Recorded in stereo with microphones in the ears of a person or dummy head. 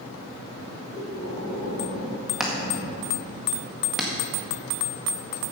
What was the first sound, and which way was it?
Breathing, 50° left (ahead or behind).